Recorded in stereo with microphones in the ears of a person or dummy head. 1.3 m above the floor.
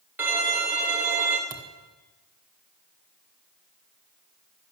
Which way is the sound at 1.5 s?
20° right (ahead or behind).